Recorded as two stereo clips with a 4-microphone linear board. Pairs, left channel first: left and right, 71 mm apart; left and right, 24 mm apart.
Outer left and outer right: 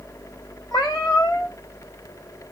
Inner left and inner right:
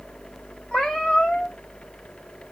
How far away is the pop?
No pop in this recording.